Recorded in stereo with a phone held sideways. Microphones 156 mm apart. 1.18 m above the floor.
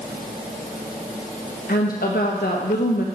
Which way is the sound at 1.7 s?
75° left (ahead or behind).